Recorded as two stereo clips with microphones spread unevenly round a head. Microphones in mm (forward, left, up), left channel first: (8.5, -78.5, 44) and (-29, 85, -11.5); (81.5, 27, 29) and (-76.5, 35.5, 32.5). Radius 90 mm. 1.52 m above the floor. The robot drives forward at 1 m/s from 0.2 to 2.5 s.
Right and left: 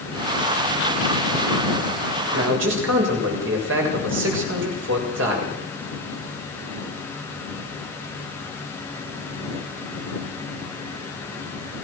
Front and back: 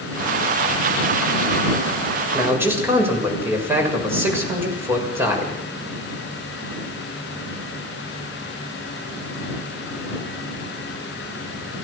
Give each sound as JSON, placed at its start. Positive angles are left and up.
{"t": 2.3, "sound": "a man speaking", "azimuth_deg": 100, "distance_m": 7.0}